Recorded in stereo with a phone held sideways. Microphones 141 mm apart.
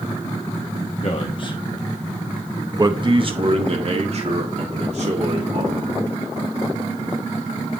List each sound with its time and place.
1.0 s a man speaking: 45° left (ahead or behind), 1.0 m; by 6.1 s 55° right (ahead or behind), 3 m